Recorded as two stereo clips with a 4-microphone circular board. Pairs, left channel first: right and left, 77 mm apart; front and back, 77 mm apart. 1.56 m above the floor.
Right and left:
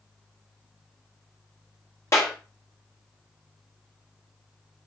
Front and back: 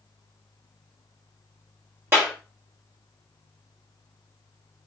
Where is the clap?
130° right, 1.1 m.